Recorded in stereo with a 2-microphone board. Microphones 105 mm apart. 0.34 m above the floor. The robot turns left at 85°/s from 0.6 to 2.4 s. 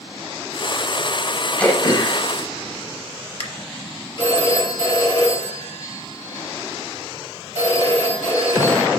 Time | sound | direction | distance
1.6 | throat clearing | 10° left (ahead or behind) | 0.6 m
4.2 | a phone ringing | 65° left (ahead or behind) | 2.5 m